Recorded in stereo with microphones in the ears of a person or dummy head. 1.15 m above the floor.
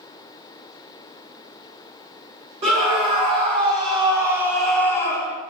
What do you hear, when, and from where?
2.6 s a scream: 35° right (ahead or behind), 1.6 m; by 5.4 s 25° left (ahead or behind), 0.7 m